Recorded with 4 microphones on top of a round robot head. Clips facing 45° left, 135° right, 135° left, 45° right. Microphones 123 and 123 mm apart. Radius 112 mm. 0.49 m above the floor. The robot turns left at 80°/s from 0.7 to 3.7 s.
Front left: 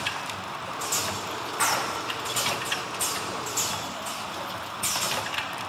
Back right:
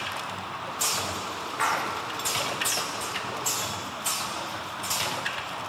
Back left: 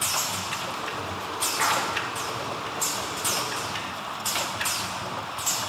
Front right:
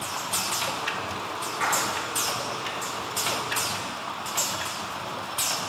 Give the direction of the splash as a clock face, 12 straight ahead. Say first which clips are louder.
Even, back left 1 dB; 8 o'clock.